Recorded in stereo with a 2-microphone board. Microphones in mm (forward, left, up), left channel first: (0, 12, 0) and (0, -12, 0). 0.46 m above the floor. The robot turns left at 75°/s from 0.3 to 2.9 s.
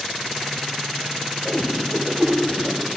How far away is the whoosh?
About 0.7 m.